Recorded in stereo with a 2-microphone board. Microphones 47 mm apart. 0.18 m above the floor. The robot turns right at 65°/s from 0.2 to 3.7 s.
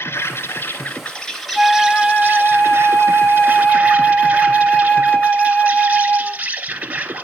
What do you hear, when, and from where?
0.0 s an insect: 90° left, 0.9 m; by 7.2 s 45° right, 0.9 m
1.6 s a flute: 5° left, 0.6 m; by 6.4 s 145° left, 0.6 m